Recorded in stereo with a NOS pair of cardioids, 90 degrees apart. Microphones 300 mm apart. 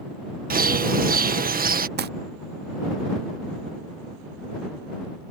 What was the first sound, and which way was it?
A bird, 30° right.